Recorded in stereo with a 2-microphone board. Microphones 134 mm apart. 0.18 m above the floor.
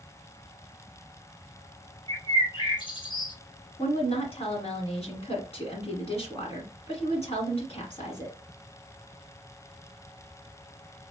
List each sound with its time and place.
2.1 s a bird: 35° left (ahead or behind), 1.6 m
3.8 s a woman speaking: 45° left (ahead or behind), 1.5 m